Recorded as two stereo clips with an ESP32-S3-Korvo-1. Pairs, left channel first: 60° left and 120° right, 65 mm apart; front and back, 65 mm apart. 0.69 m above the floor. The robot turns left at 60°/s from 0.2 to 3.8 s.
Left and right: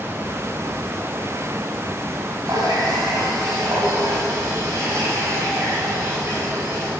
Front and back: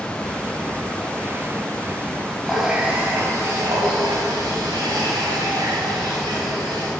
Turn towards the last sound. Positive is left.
turn(degrees=-165)